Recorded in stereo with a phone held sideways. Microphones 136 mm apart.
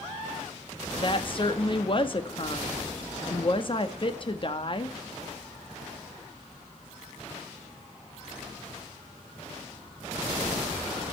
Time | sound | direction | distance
1.0 | a woman speaking | 40° left (ahead or behind) | 1.0 m